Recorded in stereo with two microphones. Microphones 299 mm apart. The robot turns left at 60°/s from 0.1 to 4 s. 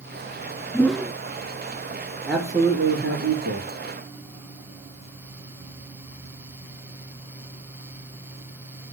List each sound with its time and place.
0.7 s a whoosh: 10° left (ahead or behind), 0.6 m; by 1.1 s 10° right (ahead or behind), 0.6 m
2.3 s a man speaking: 5° left, 4 m; by 3.7 s 80° right, 4 m